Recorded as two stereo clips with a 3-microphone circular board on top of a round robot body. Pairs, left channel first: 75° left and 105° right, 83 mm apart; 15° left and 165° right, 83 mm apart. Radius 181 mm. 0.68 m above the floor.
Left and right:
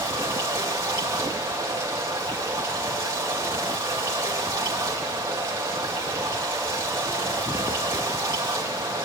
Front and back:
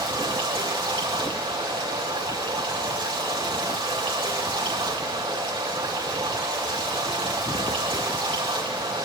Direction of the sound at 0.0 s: 160° right.